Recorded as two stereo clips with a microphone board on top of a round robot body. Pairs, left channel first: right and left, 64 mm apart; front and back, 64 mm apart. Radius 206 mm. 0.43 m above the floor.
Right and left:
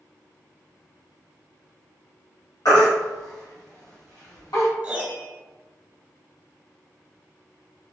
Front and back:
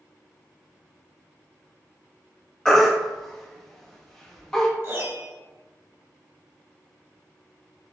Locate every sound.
2.6 s a baby crying: 80° right, 1.1 m
4.8 s a piano: 145° left, 1.4 m